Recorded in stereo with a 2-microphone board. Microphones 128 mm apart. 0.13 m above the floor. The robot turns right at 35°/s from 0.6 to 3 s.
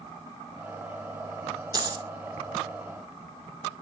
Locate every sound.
1.7 s a dropped coin: 30° right (ahead or behind), 0.6 m; by 2.0 s 35° right (ahead or behind), 0.6 m